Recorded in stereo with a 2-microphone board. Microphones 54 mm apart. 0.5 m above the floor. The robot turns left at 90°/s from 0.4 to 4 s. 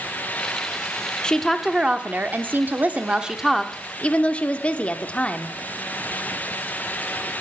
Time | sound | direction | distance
1.2 | a woman speaking | 25° left | 0.9 m